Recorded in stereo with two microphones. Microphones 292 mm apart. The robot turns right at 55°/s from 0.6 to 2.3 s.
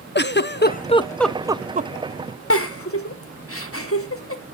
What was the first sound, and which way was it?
A giggle, 35° left (ahead or behind).